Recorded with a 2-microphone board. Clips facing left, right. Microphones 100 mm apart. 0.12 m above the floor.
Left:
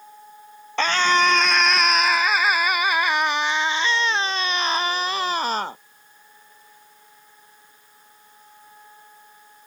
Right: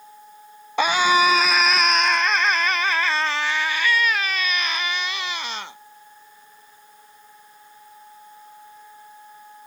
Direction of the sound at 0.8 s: 10° right (ahead or behind).